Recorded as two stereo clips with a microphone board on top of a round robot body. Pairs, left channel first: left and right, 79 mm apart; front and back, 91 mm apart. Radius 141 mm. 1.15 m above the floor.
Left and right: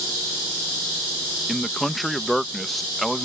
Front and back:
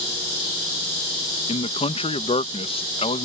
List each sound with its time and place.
1.5 s a man speaking: straight ahead